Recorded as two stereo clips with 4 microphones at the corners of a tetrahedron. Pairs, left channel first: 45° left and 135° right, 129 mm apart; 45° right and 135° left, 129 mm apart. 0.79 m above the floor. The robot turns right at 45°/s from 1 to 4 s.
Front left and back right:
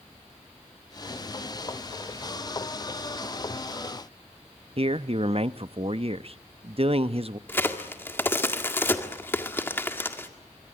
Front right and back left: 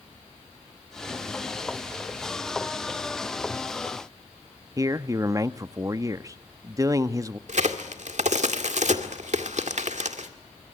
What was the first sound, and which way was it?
A man speaking, 165° right.